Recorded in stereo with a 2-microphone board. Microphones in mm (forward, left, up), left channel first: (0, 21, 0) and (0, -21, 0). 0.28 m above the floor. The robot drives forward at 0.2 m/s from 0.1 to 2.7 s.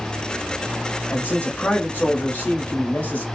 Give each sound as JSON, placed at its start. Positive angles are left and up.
{"t": 1.1, "sound": "a man speaking", "side_deg": 35, "distance_m": 1.1}